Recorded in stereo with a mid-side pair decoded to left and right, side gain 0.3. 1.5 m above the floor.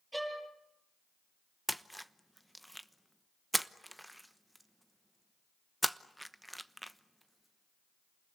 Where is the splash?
5° right, 1.0 m.